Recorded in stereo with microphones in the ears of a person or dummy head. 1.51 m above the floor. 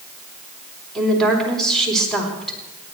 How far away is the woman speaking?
About 3 m.